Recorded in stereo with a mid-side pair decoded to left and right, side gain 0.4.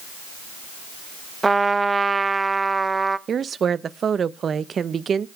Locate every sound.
1.4 s a trumpet: 25° right, 0.7 m
3.3 s a woman speaking: 50° right, 0.8 m